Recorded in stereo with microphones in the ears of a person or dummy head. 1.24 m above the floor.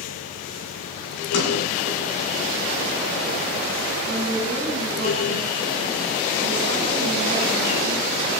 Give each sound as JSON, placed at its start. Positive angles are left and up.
{"t": 1.3, "sound": "a sliding door", "side_deg": 70, "distance_m": 8.5}
{"t": 4.1, "sound": "a woman speaking", "side_deg": -60, "distance_m": 7.0}